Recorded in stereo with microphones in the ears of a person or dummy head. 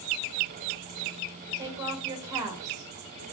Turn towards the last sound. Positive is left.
turn(degrees=-15)  # may be behind; listen again after turning